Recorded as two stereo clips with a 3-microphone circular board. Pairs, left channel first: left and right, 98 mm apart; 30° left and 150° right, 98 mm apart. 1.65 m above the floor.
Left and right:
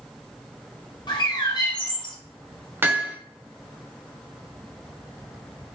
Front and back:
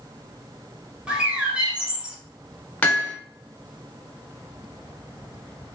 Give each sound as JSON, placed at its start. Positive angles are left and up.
{"t": 1.1, "sound": "a bird", "azimuth_deg": 130, "distance_m": 1.0}
{"t": 2.8, "sound": "hammering", "azimuth_deg": -35, "distance_m": 0.9}